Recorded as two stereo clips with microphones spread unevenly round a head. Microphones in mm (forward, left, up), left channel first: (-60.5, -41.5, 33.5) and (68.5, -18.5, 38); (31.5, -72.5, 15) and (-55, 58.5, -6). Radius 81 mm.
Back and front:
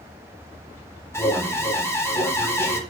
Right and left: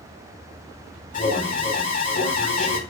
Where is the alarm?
100° right, 4.5 m.